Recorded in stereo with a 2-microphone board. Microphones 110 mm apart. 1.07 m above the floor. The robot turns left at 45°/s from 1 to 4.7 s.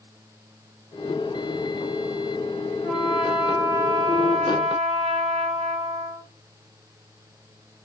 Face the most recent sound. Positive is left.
turn(degrees=-80)